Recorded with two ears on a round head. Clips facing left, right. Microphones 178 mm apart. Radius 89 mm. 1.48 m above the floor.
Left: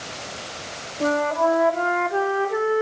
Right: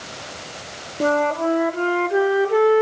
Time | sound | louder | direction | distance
1.0 | a flute | right 1 dB | 40° right (ahead or behind) | 1.6 m